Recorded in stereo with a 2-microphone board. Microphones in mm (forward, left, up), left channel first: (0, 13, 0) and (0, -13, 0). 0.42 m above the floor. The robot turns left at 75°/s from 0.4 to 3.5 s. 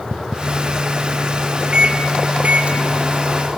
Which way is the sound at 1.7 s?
40° right (ahead or behind).